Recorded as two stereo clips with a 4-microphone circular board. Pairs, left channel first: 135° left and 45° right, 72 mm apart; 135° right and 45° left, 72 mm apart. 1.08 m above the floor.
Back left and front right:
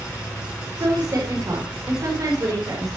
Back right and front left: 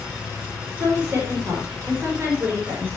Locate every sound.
0.8 s a woman speaking: 10° right, 4 m